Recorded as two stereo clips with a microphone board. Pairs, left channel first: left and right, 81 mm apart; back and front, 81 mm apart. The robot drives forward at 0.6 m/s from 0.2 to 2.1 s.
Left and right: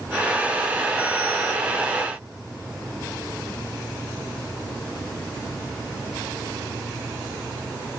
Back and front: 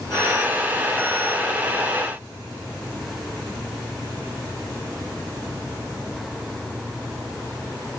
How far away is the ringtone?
No ringtone in this recording.